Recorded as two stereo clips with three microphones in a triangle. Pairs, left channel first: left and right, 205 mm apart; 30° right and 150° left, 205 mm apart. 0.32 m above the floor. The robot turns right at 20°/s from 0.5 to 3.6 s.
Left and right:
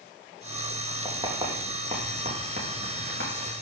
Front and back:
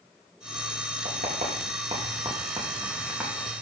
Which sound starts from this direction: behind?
Writing, at 1.1 s.